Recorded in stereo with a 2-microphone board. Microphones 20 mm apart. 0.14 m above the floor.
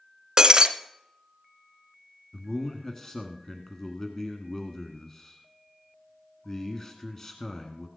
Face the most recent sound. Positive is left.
turn(degrees=20)  # may be behind; listen again after turning